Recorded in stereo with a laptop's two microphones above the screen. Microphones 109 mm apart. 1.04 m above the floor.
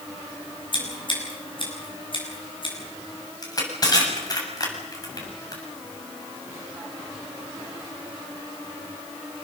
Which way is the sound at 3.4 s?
35° left (ahead or behind).